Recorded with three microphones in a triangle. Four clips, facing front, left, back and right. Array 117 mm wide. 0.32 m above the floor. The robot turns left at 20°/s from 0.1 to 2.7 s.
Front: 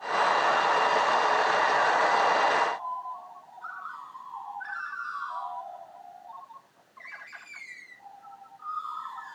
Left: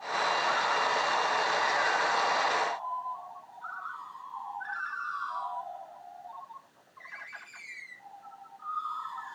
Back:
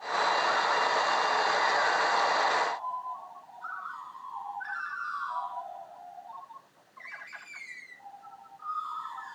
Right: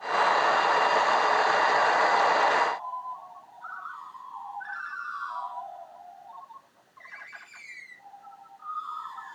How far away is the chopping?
I don't hear chopping.